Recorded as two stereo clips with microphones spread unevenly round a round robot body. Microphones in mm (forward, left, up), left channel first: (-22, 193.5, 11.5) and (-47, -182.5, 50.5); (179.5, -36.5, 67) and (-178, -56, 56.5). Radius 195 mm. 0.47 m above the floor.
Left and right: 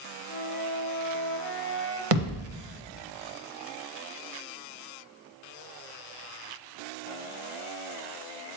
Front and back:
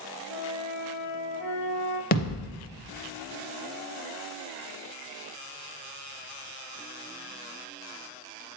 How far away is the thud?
About 0.8 m.